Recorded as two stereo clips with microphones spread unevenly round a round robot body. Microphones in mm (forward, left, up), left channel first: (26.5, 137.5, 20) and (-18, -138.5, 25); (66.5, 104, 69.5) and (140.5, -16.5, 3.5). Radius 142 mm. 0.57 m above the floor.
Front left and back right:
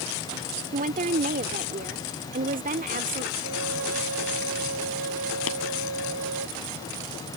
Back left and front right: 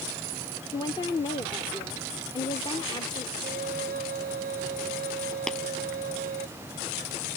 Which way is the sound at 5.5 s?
35° left.